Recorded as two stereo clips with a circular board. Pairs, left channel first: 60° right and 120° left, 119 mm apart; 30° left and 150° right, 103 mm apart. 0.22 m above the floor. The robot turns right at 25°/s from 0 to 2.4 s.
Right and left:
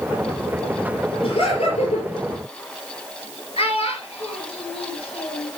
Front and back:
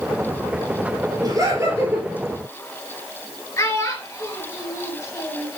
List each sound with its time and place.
1.2 s laughter: 100° right, 4.5 m; by 2.1 s 80° right, 4.5 m
3.6 s a child speaking: 30° right, 3 m